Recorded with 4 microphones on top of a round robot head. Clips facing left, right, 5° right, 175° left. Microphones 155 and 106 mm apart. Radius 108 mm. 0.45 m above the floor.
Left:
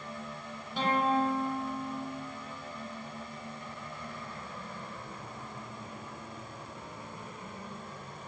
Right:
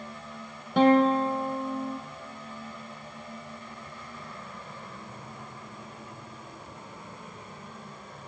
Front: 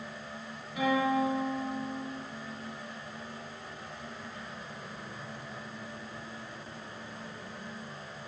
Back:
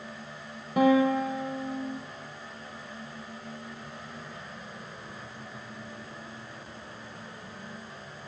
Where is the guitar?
125° right, 3 m.